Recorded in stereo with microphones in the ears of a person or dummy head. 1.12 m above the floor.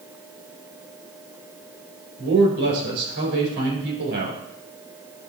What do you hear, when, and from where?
2.2 s a man speaking: 65° right (ahead or behind), 4 m